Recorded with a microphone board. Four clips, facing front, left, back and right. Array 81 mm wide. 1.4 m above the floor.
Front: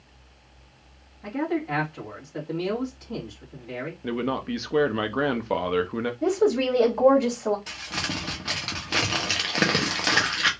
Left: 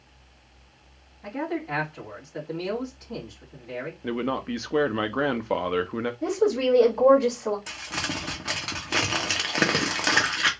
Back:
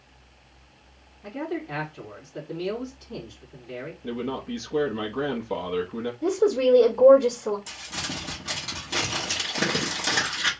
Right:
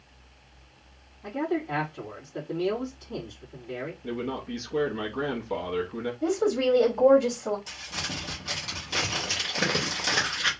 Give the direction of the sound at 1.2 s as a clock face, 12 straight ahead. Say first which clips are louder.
Right 1 dB, front 4 dB; 11 o'clock.